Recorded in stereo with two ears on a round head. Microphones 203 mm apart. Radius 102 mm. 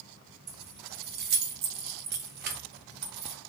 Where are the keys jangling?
45° right (ahead or behind), 0.5 m.